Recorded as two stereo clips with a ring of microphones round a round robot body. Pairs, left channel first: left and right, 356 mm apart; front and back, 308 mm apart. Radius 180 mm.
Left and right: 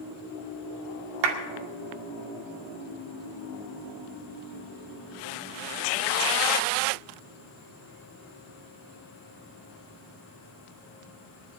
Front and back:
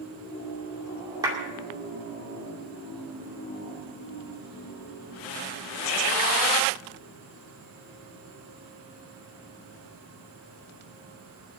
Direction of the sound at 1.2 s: 100° right.